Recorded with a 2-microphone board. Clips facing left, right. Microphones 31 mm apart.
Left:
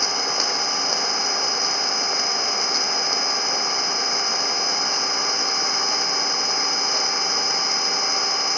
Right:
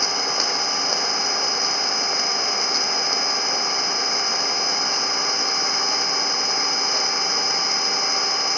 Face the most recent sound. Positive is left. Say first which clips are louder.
# even
turn(degrees=-5)  # may be behind; listen again after turning